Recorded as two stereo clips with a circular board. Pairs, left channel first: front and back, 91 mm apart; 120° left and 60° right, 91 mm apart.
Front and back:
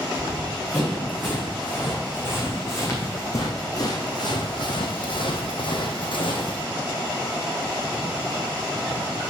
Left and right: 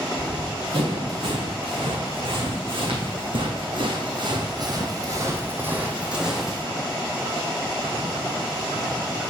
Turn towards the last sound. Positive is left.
turn(degrees=30)